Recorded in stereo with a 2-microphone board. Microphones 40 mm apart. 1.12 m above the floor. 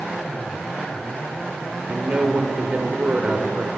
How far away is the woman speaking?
About 3 m.